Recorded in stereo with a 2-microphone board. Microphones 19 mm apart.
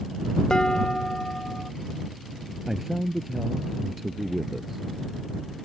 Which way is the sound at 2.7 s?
15° right (ahead or behind).